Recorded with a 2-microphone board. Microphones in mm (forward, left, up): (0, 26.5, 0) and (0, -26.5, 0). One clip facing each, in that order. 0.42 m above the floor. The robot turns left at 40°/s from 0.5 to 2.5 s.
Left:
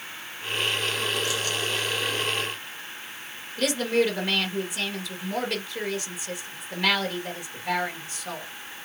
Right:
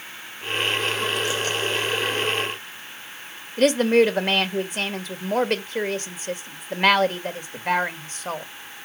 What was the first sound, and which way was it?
A woman speaking, 45° right (ahead or behind).